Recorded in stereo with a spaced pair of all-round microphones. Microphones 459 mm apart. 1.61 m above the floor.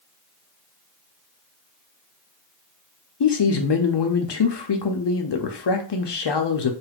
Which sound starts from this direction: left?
A man speaking, at 3.2 s.